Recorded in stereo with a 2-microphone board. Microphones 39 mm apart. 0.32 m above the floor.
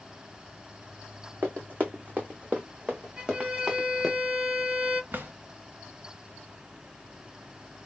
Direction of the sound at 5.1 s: 60° right (ahead or behind).